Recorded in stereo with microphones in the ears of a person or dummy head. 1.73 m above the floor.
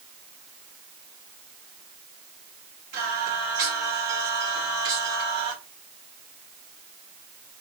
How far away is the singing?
About 1.7 m.